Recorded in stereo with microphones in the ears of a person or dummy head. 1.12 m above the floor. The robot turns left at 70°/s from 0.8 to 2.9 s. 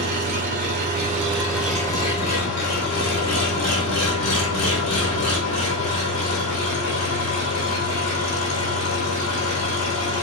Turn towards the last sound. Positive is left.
turn(degrees=90)